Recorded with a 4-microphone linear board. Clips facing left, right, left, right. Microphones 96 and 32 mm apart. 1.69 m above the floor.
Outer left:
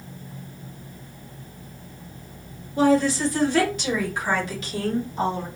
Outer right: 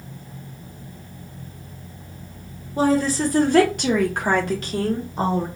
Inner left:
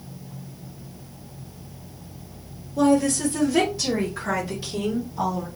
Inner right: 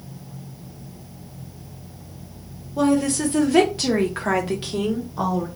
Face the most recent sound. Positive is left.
turn(degrees=-35)  # may be behind; listen again after turning